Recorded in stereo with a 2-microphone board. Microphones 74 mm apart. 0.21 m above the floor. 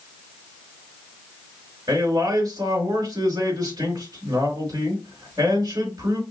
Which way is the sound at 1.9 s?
60° right (ahead or behind).